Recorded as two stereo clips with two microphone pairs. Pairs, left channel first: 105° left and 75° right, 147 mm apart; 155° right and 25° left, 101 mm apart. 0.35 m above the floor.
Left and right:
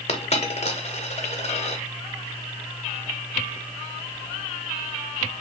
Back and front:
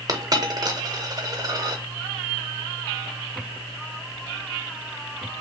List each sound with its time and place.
0.1 s a dropped coin: 65° left, 0.8 m